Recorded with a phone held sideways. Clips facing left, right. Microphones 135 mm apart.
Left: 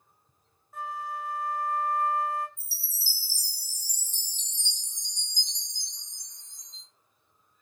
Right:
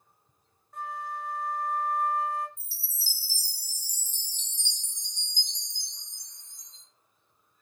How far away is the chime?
About 1.3 m.